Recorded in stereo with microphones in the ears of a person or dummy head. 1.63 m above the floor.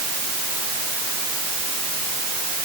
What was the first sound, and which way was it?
Only background noise.